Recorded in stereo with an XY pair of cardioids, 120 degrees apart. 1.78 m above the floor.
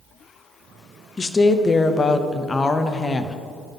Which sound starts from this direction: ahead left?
A woman speaking, at 1.2 s.